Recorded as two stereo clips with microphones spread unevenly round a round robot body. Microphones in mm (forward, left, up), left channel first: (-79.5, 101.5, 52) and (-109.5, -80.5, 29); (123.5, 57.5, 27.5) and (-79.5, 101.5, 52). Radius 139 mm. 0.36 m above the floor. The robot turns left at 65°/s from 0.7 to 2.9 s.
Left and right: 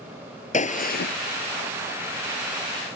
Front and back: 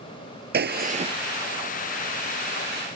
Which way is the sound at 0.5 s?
130° left.